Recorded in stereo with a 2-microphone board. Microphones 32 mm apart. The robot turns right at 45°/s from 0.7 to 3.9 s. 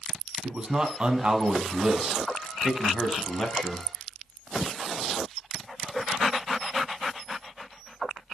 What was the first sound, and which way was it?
A man speaking, 110° right.